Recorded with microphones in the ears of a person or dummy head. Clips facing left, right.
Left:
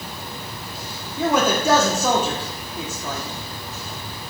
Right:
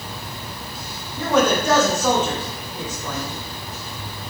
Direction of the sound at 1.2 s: 5° left (ahead or behind).